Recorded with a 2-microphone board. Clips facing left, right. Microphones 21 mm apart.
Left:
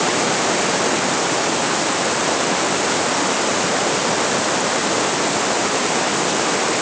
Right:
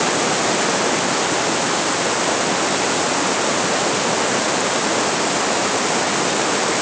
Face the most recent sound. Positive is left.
No sound to turn to.